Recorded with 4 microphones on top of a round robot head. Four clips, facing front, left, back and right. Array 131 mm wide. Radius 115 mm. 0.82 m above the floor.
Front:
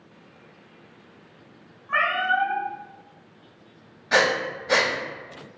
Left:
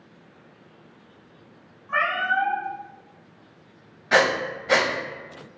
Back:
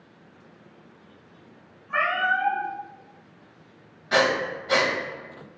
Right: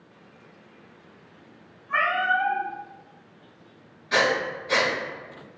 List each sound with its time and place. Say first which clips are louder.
1.9 s a cat meowing: even, front 1 dB; 40° left, 0.9 m
4.1 s breathing: left 3 dB, even; 80° left, 1.0 m